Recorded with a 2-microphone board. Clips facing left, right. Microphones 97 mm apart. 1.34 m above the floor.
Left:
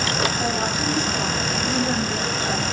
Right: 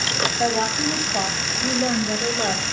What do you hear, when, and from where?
0.4 s a woman speaking: 40° right (ahead or behind), 9 m